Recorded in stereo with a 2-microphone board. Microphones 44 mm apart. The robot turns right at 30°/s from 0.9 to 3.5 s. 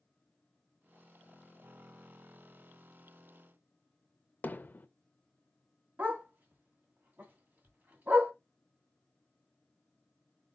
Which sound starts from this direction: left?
Hammering, at 4.4 s.